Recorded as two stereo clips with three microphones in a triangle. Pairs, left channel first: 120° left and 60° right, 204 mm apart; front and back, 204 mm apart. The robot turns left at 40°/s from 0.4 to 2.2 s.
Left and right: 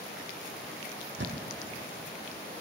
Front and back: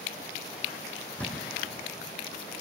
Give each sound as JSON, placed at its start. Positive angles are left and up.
{"t": 1.2, "sound": "a thud", "azimuth_deg": -80, "distance_m": 1.2}